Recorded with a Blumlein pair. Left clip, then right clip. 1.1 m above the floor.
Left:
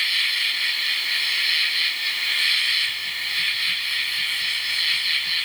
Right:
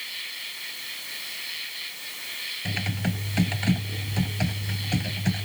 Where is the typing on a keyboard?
45° right.